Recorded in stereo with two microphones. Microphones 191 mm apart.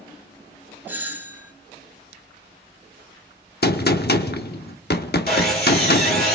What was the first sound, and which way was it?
A doorbell, 10° right (ahead or behind).